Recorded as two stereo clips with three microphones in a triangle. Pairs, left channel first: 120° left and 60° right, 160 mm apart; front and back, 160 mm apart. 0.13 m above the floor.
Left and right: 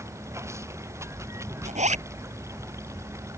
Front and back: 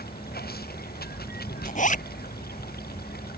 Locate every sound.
0.0 s running water: 10° left
1.6 s a zipper: 25° right